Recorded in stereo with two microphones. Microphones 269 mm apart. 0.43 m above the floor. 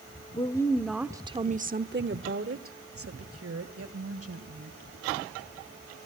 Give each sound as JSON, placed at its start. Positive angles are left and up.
{"t": 0.3, "sound": "a woman speaking", "side_deg": 20, "distance_m": 1.0}